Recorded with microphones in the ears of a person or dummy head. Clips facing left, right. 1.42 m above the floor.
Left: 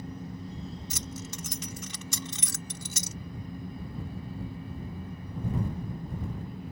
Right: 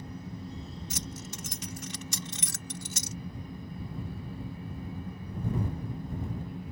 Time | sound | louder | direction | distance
0.9 | keys jangling | left 1 dB | 85° left | ?